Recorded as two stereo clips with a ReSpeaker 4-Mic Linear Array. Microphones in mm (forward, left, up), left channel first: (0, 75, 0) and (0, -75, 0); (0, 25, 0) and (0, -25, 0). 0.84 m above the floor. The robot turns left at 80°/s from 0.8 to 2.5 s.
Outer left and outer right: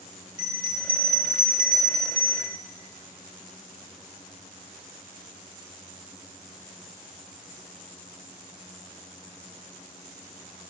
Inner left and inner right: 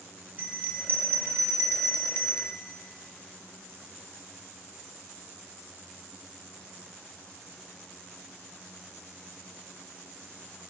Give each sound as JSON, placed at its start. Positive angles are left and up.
{"t": 0.4, "sound": "a bell", "azimuth_deg": -30, "distance_m": 1.4}